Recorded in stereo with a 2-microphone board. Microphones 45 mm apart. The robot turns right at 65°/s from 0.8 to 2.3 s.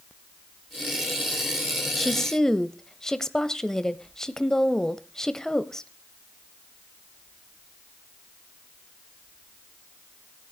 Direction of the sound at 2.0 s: 5° left (ahead or behind).